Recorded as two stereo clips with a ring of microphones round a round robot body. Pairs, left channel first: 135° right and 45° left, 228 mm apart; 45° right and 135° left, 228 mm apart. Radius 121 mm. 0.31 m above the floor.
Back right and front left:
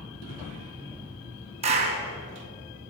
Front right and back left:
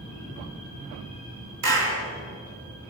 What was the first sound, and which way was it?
A clap, 105° left.